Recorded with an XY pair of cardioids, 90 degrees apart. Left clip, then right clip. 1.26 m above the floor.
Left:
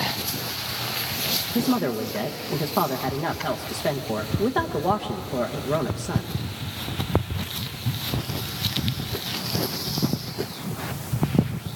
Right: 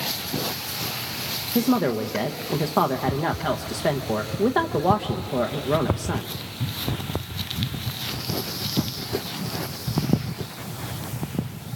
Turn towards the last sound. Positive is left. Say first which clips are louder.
# right 2 dB
turn(degrees=-25)